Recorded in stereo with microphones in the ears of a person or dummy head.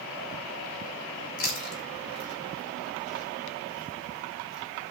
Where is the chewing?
70° left (ahead or behind), 3 m.